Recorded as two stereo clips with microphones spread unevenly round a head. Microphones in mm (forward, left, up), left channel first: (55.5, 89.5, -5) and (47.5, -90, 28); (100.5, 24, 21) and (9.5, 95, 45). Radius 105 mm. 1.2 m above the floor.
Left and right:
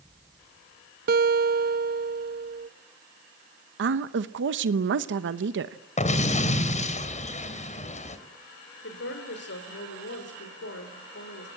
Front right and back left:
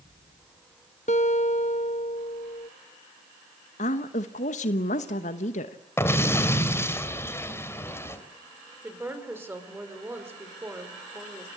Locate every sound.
1.1 s a guitar: 95° right, 0.6 m
3.8 s a woman speaking: 75° right, 1.0 m
6.0 s an explosion: 35° left, 2.5 m
8.8 s a woman speaking: 70° left, 5 m